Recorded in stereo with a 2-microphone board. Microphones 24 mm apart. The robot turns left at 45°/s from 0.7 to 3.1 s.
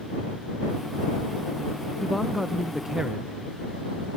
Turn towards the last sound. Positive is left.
turn(degrees=-40)